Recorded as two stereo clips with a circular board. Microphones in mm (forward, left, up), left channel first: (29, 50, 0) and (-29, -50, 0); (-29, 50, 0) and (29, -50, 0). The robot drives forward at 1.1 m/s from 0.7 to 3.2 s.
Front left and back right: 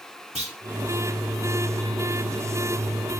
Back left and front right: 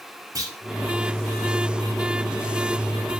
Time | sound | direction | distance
0.3 | a clunk | 115° right | 1.7 m